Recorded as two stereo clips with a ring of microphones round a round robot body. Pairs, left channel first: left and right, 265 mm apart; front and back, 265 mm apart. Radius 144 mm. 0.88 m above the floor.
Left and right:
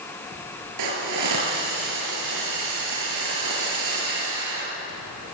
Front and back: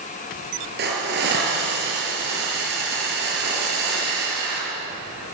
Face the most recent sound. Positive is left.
turn(degrees=-120)